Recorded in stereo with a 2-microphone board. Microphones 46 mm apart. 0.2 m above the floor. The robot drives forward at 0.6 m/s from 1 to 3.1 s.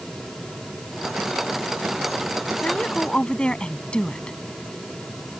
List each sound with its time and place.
2.6 s a woman speaking: 25° left (ahead or behind)